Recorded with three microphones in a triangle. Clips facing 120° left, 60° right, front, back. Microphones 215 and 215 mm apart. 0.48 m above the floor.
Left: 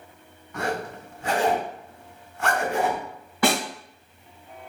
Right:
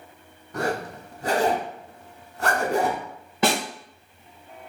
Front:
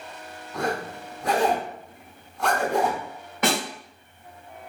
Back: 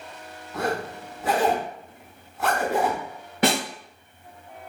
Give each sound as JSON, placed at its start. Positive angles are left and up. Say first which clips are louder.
{"t": 0.5, "sound": "a zipper", "louder": "right 2 dB, back 1 dB", "azimuth_deg": -95, "distance_m": 0.5}
{"t": 3.4, "sound": "a snare drum", "louder": "even, back 2 dB", "azimuth_deg": -125, "distance_m": 1.2}